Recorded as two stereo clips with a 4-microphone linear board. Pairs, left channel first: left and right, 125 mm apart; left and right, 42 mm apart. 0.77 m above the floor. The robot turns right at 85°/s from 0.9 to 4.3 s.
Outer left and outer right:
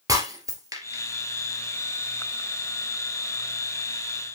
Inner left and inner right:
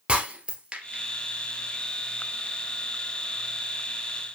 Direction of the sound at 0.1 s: 25° right (ahead or behind).